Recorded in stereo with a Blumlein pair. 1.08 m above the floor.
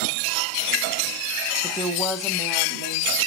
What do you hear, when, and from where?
1.6 s a woman speaking: 5° left, 1.3 m; by 3.1 s 40° right, 2.5 m